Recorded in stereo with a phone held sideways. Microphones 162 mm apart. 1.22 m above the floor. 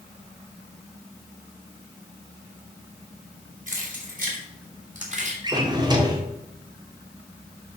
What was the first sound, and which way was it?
Keys jangling, 55° right (ahead or behind).